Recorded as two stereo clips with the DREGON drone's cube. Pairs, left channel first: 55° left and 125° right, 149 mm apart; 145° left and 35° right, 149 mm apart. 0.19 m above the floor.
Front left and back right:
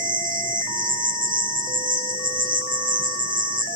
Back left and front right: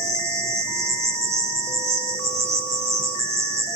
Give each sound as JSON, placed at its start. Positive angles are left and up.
{"t": 0.0, "sound": "an insect", "azimuth_deg": -105, "distance_m": 5.5}